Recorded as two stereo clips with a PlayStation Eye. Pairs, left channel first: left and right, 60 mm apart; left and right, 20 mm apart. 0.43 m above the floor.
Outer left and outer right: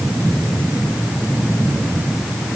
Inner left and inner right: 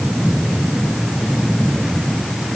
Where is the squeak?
No squeak in this recording.